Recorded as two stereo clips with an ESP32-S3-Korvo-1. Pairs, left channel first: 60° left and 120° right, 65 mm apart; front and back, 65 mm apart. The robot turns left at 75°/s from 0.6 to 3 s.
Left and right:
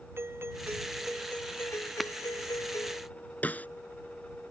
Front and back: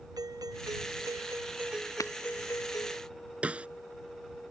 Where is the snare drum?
115° left.